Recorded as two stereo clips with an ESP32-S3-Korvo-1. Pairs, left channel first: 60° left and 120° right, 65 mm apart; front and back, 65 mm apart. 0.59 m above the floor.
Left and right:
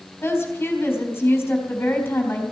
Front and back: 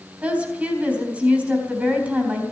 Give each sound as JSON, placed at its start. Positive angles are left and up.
{"t": 0.2, "sound": "a woman speaking", "azimuth_deg": 115, "distance_m": 3.5}